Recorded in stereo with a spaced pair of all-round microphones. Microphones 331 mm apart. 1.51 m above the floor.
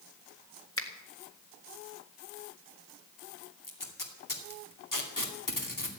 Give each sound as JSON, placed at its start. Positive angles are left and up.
{"t": 0.8, "sound": "a finger snap", "side_deg": 40, "distance_m": 1.8}
{"t": 3.6, "sound": "tape being pulled", "side_deg": 70, "distance_m": 2.5}